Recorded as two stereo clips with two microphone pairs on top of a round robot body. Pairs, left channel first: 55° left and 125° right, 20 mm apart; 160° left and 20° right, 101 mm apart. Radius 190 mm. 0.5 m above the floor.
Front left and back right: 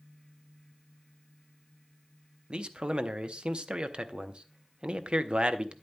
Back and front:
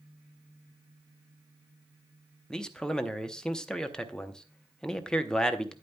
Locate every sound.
2.5 s a man speaking: 115° right, 1.0 m